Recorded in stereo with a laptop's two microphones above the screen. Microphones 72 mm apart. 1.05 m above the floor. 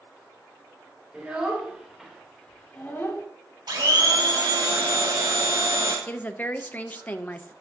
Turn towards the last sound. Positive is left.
turn(degrees=25)  # may be behind; listen again after turning